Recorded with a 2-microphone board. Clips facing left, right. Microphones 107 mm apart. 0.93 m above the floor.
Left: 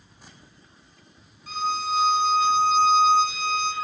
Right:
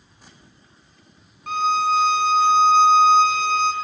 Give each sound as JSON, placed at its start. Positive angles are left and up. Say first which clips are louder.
{"t": 1.5, "sound": "a violin", "louder": "right 7 dB", "side_deg": -60, "distance_m": 0.7}